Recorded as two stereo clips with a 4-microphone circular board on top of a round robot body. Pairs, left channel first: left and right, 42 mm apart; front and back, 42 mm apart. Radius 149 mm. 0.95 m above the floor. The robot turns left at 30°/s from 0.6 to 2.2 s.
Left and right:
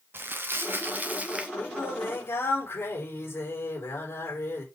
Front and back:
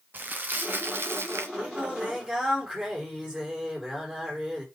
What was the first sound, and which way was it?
Crumpling, 130° right.